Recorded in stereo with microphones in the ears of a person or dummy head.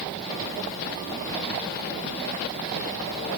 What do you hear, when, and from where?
Only background noise.